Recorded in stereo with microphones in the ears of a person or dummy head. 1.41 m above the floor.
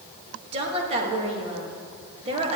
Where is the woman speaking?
35° right (ahead or behind), 1.9 m.